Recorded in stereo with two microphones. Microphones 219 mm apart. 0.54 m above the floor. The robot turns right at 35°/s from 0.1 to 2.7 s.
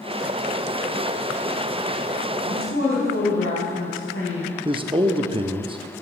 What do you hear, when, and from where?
2.5 s a woman speaking: 80° left, 4.5 m; by 4.5 s 75° left (ahead or behind), 4.5 m
4.7 s a man speaking: 25° right (ahead or behind), 0.6 m